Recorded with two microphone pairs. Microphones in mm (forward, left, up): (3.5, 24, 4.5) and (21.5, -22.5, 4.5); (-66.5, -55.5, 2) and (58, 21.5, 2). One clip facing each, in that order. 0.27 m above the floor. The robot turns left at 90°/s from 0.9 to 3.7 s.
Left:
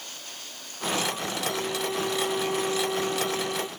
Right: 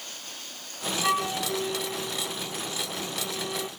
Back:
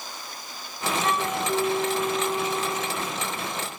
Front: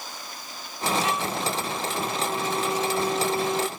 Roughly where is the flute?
Right.